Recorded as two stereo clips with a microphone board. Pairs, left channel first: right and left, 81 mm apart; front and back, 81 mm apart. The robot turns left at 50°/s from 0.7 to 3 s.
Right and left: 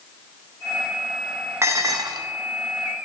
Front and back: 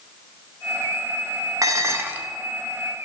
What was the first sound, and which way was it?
Dishes clattering, 140° left.